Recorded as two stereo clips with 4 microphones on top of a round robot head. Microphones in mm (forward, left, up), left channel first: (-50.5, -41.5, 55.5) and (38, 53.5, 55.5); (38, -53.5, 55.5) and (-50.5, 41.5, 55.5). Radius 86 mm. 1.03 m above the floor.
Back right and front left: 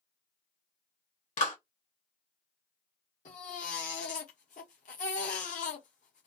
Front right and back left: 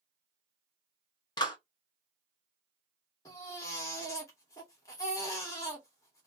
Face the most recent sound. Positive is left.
turn(degrees=-110)